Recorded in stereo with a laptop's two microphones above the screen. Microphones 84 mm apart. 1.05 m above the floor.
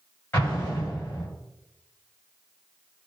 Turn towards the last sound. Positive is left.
turn(degrees=25)  # may be behind; listen again after turning